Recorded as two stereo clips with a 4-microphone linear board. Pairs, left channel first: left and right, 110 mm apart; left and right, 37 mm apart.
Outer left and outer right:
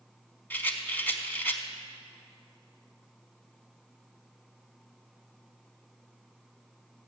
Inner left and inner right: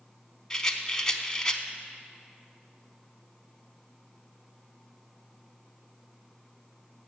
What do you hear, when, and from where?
0.5 s a rattle: 20° left (ahead or behind), 0.7 m